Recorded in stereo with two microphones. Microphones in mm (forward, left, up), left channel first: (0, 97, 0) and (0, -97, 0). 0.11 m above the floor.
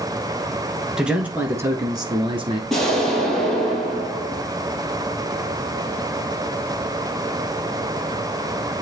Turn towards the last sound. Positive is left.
turn(degrees=0)  # may be behind; listen again after turning